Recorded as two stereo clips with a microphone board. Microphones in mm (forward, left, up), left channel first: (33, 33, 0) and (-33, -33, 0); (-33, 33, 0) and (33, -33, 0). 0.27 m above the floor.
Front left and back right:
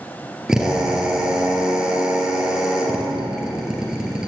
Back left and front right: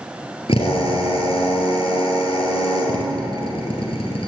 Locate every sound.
0.5 s a drill: 140° left, 2.5 m